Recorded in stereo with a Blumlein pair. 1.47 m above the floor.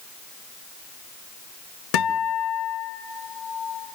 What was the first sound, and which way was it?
A guitar, 45° left.